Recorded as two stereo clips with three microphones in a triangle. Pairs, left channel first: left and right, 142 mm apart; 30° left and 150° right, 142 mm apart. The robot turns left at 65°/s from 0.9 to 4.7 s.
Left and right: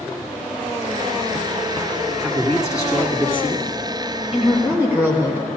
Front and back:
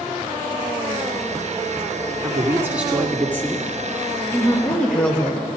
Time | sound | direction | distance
2.2 | a man speaking | 170° left | 1.7 m
4.3 | a woman speaking | 15° right | 1.4 m